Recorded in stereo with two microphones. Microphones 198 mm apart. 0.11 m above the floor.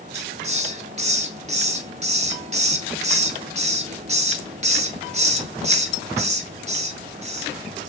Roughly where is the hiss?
Right.